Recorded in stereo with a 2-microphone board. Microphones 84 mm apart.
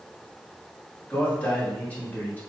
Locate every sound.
1.1 s a man speaking: 20° left (ahead or behind), 3 m